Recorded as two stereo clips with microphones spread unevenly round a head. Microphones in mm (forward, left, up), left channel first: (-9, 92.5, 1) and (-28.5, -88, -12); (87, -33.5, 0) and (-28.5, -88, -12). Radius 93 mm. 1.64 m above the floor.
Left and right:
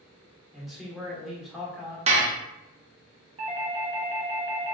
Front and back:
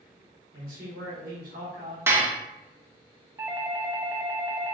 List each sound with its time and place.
0.5 s a man speaking: 175° left, 1.1 m
2.1 s dishes clattering: 95° right, 0.7 m
3.4 s a doorbell: 115° right, 0.6 m